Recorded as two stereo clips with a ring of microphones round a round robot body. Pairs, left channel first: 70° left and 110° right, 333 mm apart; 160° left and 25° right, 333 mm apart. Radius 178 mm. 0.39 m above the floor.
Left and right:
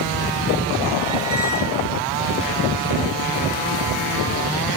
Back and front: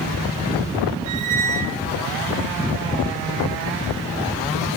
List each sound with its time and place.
1.1 s a squeak: 35° right, 1.1 m